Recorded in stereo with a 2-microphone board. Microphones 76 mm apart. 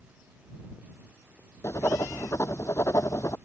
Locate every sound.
1.6 s writing: 40° left (ahead or behind)